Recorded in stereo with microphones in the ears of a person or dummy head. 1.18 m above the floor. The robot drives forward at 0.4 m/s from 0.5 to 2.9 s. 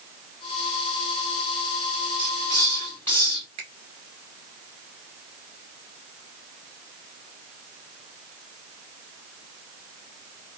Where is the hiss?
20° left (ahead or behind), 1.3 m.